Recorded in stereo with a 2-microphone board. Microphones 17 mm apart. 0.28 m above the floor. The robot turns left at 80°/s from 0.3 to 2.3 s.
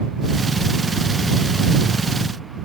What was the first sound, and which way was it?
Only background noise.